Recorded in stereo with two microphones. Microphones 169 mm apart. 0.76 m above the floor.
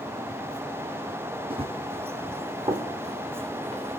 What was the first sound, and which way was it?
Running footsteps, 35° right (ahead or behind).